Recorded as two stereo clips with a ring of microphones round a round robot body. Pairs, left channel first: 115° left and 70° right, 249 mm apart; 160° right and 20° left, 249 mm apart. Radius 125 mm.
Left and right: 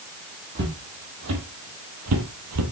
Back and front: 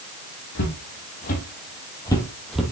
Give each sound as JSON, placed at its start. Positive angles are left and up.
{"t": 0.6, "sound": "footsteps", "azimuth_deg": -115, "distance_m": 2.5}